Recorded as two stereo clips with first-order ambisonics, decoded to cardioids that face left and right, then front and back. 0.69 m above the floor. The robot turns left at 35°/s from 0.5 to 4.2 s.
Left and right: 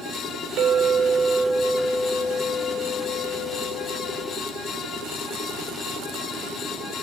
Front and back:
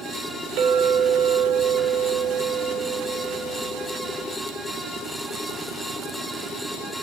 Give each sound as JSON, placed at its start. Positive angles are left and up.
{"t": 0.6, "sound": "a clink", "azimuth_deg": -145, "distance_m": 0.5}